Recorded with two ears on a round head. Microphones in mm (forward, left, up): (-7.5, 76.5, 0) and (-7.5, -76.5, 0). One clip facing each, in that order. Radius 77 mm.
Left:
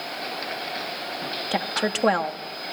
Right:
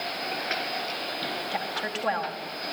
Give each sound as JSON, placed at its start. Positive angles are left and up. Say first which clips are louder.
{"t": 1.5, "sound": "a woman speaking", "louder": "left 6 dB", "side_deg": 65, "distance_m": 2.0}